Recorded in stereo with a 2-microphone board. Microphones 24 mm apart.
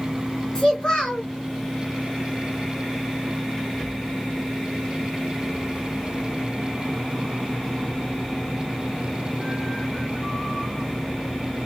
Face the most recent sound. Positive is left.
turn(degrees=40)  # may be behind; listen again after turning